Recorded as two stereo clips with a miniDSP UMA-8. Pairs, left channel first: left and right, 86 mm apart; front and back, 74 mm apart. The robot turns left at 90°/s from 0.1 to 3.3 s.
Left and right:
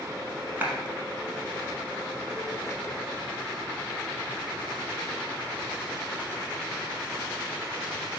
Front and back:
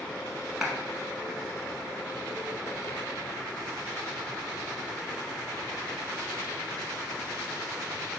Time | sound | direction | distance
0.6 | a clap | 110° right | 0.8 m